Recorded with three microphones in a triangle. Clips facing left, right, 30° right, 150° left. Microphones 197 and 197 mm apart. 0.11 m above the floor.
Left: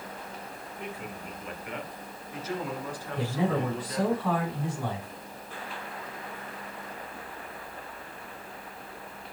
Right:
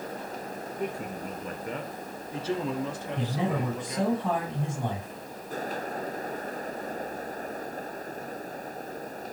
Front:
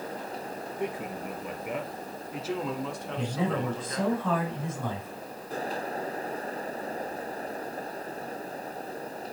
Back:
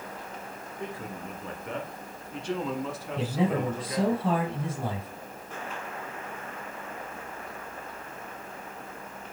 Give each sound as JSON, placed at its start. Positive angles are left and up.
{"t": 0.8, "sound": "a man speaking", "azimuth_deg": -95, "distance_m": 2.5}
{"t": 3.2, "sound": "a man speaking", "azimuth_deg": -155, "distance_m": 4.5}